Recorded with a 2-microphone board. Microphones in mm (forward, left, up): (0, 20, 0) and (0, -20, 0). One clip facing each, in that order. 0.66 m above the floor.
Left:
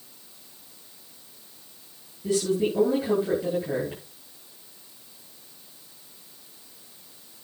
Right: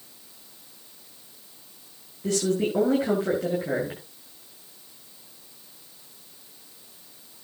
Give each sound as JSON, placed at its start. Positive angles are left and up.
{"t": 2.2, "sound": "a woman speaking", "side_deg": -85, "distance_m": 9.5}